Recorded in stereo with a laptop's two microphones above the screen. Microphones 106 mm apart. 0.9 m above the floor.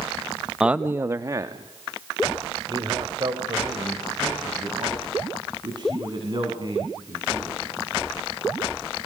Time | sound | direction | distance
0.6 | a man speaking | 5° right (ahead or behind) | 0.7 m